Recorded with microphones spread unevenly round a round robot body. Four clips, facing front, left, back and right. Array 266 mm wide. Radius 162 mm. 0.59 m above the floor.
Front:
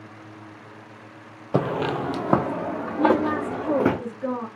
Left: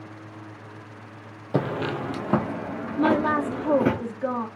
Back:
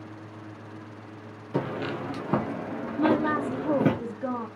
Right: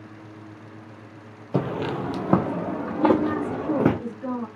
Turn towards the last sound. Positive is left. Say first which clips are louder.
# right 1 dB, front 3 dB
turn(degrees=100)